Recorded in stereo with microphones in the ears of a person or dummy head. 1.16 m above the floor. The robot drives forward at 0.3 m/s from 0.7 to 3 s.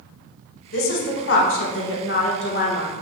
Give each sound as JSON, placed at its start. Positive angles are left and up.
{"t": 0.7, "sound": "a woman speaking", "side_deg": 65, "distance_m": 1.0}